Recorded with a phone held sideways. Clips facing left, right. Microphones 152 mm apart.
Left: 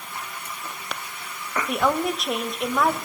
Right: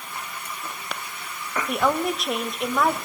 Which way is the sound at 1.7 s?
Centre (ahead or behind).